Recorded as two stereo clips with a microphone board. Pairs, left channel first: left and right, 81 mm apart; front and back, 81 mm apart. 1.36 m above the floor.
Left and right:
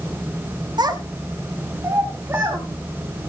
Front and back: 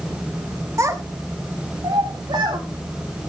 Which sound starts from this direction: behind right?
A child speaking, at 0.8 s.